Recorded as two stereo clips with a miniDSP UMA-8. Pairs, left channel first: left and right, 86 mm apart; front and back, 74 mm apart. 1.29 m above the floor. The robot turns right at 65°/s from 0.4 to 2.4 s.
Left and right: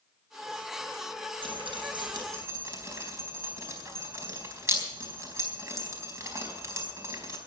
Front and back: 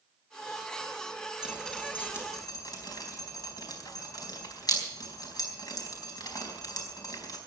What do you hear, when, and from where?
1.4 s dripping: 100° right, 4 m; by 7.4 s 35° right, 4 m